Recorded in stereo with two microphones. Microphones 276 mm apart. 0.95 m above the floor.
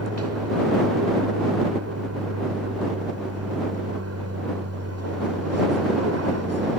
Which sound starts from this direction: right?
An aircraft, at 0.0 s.